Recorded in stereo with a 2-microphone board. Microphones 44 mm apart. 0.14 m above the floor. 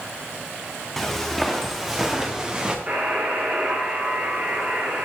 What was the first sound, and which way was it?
Footsteps, 5° left (ahead or behind).